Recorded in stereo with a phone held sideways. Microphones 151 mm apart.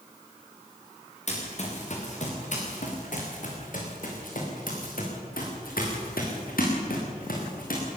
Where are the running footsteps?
50° left (ahead or behind), 7 m; by 8.0 s 75° left (ahead or behind), 7 m.